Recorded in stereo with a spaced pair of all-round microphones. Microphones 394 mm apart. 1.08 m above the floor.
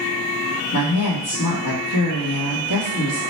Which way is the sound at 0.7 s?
65° left (ahead or behind).